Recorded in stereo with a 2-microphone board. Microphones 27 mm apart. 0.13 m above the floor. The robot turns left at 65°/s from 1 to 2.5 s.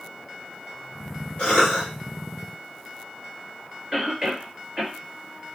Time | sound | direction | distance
1.4 | a cough | 60° left | 2 m
3.9 | a cough | 25° right (ahead or behind) | 2 m